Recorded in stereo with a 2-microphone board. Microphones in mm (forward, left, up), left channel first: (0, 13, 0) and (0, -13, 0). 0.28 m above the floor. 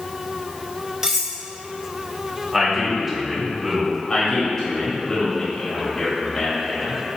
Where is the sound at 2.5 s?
20° right (ahead or behind), 1.5 m.